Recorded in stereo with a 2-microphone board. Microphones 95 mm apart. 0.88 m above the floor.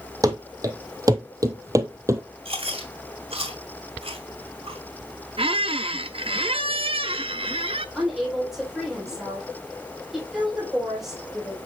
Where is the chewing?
85° right, 2.5 m.